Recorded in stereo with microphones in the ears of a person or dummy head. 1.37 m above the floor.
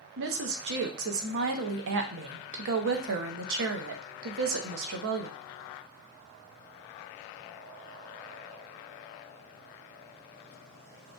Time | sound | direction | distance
0.2 | a woman speaking | 70° right (ahead or behind) | 0.8 m